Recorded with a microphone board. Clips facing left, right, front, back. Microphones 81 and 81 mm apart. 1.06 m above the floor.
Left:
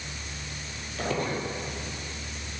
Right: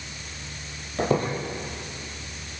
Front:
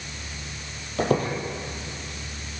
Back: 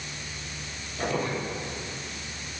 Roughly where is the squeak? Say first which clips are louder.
Right 6 dB, front 6 dB; ahead right.